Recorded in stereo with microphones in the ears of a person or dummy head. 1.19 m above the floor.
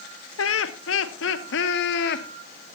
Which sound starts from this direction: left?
Laughter, at 0.4 s.